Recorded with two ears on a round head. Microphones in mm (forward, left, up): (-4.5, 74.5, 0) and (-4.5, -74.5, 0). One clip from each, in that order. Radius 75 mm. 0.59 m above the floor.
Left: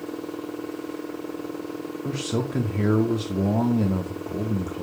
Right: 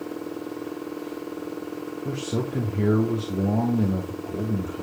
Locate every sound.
2.0 s a man speaking: 25° left (ahead or behind), 0.8 m